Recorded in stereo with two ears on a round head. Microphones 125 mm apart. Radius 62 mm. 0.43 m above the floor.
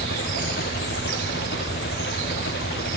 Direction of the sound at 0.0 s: 80° left.